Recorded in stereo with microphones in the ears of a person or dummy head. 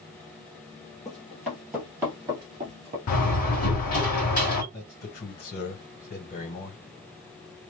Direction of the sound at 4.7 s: 45° left (ahead or behind).